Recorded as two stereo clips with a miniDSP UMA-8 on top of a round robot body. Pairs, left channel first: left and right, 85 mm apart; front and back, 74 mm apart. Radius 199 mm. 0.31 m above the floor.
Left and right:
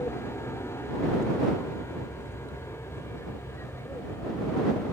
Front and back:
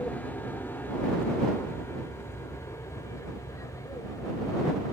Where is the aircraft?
55° left; by 4.9 s 35° left.